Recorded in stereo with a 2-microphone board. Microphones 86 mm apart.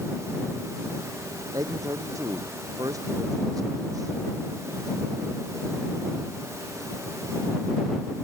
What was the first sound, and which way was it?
A man speaking, 45° right (ahead or behind).